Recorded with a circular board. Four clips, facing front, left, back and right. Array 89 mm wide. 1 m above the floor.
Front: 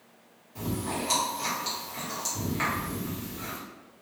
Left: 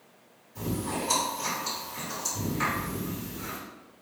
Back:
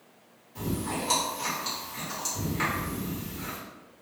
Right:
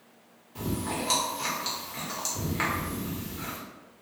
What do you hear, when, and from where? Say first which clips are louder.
0.6 s chewing: even, even; 80° right, 1.1 m